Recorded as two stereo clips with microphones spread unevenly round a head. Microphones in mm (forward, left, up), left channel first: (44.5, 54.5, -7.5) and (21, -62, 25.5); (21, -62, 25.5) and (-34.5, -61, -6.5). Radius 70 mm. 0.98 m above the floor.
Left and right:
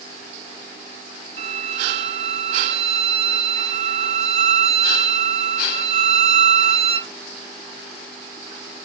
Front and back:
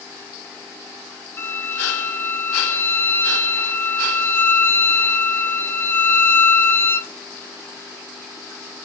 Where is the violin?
75° right, 0.5 m.